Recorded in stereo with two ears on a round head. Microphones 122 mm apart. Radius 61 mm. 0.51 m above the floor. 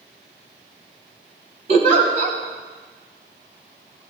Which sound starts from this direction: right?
A giggle, at 1.7 s.